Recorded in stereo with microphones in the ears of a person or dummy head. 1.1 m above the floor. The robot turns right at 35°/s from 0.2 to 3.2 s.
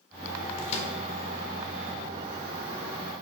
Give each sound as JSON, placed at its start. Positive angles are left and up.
{"t": 0.6, "sound": "a microwave", "side_deg": 35, "distance_m": 1.1}